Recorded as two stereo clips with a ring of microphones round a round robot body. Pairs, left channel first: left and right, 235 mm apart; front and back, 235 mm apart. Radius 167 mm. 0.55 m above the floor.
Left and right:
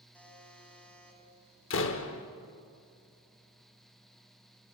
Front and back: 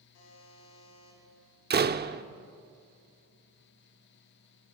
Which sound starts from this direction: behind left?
A door slam, at 1.7 s.